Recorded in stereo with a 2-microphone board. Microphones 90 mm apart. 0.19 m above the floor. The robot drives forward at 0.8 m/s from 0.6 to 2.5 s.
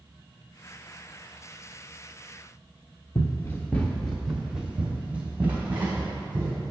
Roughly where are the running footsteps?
Left.